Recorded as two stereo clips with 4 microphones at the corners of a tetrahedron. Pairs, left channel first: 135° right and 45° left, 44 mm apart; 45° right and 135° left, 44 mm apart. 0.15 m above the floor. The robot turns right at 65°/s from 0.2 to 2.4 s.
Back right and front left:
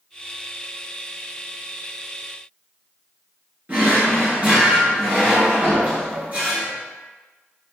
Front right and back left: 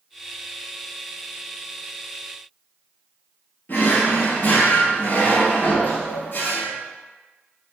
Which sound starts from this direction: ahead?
A drawer, at 3.7 s.